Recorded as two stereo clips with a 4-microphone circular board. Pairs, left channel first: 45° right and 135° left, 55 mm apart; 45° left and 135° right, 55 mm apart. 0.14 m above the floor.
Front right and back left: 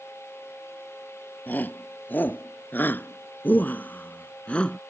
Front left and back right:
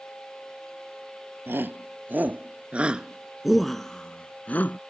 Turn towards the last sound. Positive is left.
turn(degrees=20)